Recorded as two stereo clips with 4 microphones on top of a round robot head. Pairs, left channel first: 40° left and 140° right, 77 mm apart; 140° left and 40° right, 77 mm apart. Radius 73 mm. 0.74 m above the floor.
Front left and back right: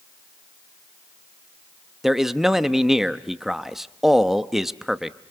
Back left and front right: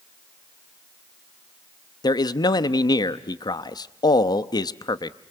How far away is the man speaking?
About 0.9 m.